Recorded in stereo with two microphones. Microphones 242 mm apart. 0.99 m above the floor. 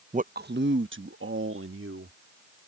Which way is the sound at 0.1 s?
30° right (ahead or behind).